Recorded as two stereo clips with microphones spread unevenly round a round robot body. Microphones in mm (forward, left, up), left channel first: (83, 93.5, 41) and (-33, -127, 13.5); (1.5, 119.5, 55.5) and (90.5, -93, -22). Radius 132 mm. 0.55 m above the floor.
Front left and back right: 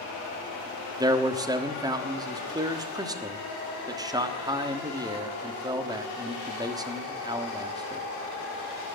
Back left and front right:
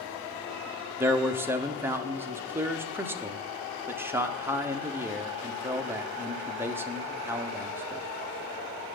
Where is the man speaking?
70° right, 1.3 m.